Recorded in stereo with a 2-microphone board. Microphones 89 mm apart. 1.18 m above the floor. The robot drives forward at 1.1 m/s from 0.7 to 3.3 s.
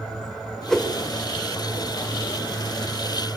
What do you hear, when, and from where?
0.7 s a whoosh: 5° left (ahead or behind), 4.5 m